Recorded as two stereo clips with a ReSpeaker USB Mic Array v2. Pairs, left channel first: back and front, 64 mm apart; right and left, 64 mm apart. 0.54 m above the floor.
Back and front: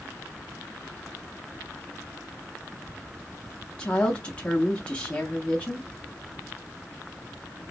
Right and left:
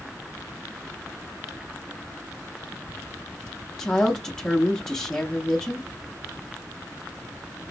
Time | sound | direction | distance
3.8 | a woman speaking | 150° right | 0.6 m